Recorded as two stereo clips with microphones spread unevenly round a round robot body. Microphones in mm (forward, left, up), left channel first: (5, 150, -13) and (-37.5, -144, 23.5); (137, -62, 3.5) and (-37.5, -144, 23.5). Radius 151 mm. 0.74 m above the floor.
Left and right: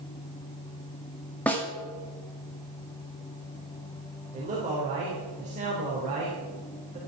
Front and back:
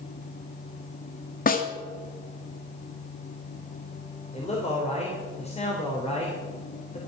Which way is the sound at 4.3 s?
30° right.